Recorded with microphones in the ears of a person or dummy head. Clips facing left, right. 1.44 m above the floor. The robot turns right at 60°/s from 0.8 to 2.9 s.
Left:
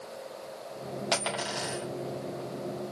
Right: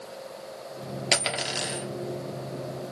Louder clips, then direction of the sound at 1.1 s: Right 2 dB; 30° right (ahead or behind).